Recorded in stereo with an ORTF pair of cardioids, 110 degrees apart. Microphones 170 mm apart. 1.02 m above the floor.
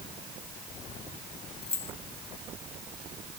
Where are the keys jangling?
35° left.